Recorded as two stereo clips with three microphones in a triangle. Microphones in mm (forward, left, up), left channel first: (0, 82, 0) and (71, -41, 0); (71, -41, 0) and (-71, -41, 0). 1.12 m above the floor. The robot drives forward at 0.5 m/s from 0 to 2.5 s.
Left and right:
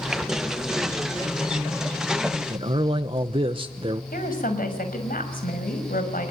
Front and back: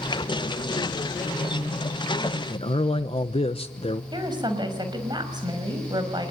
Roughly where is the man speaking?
Ahead.